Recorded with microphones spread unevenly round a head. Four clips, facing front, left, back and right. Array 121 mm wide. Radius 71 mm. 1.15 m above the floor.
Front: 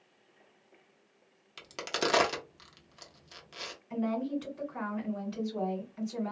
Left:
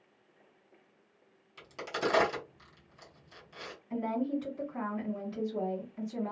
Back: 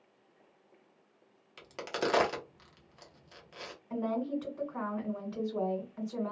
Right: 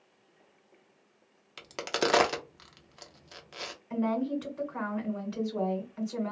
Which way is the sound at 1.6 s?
65° right.